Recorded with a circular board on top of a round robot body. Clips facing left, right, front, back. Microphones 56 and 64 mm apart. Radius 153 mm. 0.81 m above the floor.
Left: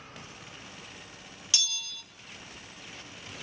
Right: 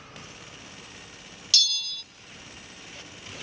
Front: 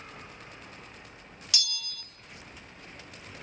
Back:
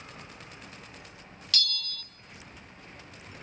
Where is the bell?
60° left, 0.7 m.